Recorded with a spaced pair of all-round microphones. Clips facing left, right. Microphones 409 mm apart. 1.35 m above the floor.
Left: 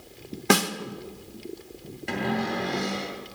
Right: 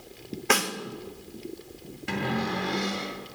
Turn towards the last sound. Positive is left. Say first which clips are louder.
# left 1 dB
turn(degrees=-20)  # may be behind; listen again after turning